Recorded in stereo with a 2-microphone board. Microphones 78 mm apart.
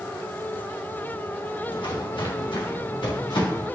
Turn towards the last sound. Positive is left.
turn(degrees=75)  # may be behind; listen again after turning